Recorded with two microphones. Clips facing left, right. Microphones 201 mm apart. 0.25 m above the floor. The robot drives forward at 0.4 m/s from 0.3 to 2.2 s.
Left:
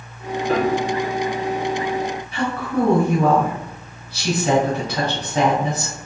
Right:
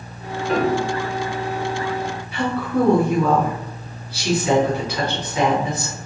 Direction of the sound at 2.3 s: 40° left (ahead or behind).